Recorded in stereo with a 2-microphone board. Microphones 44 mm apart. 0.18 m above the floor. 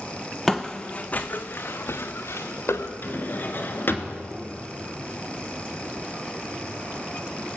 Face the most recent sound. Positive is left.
turn(degrees=50)  # may be behind; listen again after turning